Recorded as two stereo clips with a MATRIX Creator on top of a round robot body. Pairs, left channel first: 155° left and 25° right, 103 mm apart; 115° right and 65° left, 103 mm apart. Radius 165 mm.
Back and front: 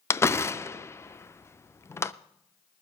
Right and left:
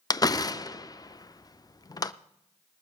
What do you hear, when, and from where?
0.1 s a door slam: 150° right, 0.6 m